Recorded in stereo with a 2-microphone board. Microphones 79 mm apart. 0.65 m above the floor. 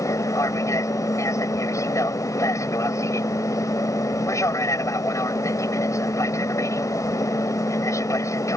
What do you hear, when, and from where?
0.0 s an aircraft: 40° left (ahead or behind)